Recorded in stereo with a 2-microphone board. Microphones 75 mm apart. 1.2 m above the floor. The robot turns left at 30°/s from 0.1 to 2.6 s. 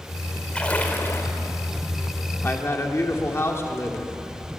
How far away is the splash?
About 2.5 m.